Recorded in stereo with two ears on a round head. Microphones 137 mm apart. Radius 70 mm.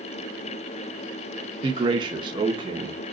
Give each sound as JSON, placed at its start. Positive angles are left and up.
{"t": 1.6, "sound": "a man speaking", "side_deg": -30, "distance_m": 0.9}